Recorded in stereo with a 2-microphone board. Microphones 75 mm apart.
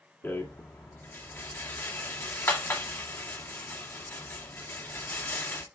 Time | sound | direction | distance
0.2 | a rattle | 30° left (ahead or behind) | 1.8 m